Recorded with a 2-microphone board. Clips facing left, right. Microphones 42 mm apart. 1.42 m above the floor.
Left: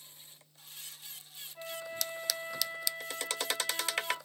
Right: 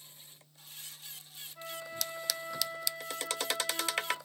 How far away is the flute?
About 5 m.